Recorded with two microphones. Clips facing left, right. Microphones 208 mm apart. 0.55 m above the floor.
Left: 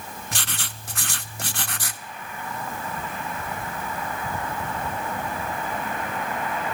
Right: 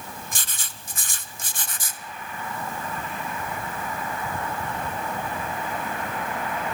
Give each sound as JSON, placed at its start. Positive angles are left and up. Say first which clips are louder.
{"t": 0.3, "sound": "writing", "louder": "left 5 dB", "side_deg": 75, "distance_m": 0.7}